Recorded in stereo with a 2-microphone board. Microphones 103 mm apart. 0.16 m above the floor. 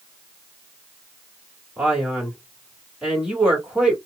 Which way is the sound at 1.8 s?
10° right (ahead or behind).